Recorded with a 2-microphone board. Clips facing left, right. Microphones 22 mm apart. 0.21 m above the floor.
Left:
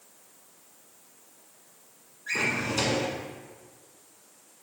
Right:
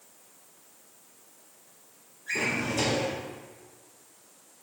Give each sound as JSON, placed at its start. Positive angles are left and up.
{"t": 2.3, "sound": "a drawer", "side_deg": 35, "distance_m": 1.4}